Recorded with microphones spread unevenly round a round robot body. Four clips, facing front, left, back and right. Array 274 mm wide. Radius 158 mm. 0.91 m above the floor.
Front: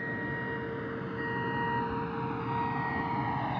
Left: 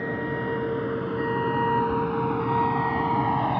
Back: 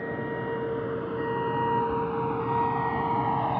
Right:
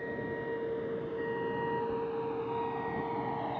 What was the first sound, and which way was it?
A vehicle, 100° left.